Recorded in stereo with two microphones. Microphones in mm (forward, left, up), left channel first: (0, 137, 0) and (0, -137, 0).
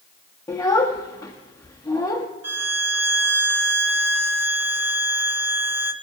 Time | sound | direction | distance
0.5 | a child speaking | 15° left (ahead or behind) | 0.9 m
2.4 | a violin | 65° right (ahead or behind) | 0.7 m